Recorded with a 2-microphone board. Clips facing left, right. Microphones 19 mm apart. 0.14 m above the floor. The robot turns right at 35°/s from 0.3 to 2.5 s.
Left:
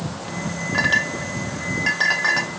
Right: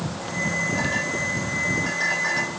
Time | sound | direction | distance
0.7 | a clink | 50° left (ahead or behind) | 1.3 m